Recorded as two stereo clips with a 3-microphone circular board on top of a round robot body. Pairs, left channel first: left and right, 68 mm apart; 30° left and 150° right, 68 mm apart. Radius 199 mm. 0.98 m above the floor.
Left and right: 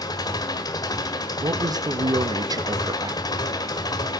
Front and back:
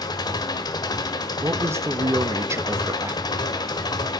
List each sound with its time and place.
0.0 s an engine running: 60° left, 1.4 m
1.4 s a man speaking: 100° right, 2.5 m